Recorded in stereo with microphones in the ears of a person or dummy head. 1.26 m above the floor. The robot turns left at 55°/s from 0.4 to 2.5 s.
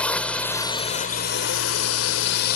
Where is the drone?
170° left; by 2.6 s 55° left.